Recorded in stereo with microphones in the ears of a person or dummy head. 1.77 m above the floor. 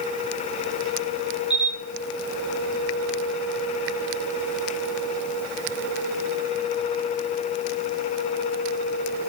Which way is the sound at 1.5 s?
35° left (ahead or behind).